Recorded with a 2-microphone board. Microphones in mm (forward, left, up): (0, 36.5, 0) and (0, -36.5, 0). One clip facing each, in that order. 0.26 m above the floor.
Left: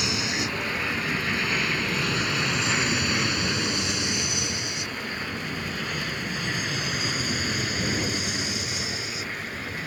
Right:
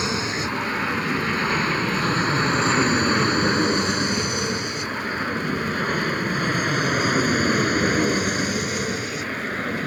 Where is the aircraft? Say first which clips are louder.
Right 3 dB; 35° right (ahead or behind); by 9.9 s 50° right (ahead or behind).